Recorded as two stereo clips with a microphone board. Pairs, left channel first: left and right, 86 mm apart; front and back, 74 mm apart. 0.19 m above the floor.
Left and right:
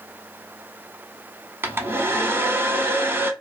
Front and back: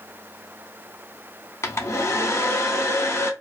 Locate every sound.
1.6 s a hair dryer: 35° right, 0.6 m